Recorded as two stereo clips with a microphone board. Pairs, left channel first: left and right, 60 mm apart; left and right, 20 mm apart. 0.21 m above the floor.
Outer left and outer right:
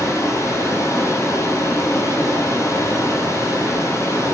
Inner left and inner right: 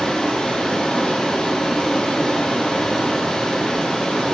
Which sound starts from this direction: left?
Running water, at 0.0 s.